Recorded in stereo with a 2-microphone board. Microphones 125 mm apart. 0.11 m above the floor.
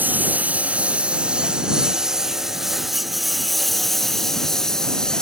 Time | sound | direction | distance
0.0 | a lawn mower | 15° right (ahead or behind) | ?